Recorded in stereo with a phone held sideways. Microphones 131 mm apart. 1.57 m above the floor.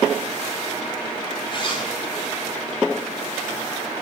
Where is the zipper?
40° left (ahead or behind), 4.5 m.